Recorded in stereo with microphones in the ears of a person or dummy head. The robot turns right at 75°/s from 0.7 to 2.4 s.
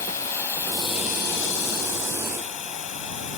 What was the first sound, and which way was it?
Running water, 15° left.